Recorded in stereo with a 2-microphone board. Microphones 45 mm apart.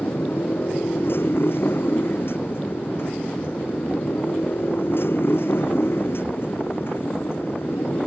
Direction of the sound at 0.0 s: 60° left (ahead or behind).